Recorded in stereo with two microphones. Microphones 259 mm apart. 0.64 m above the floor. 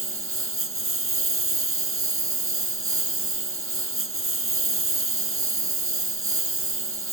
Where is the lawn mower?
55° right (ahead or behind).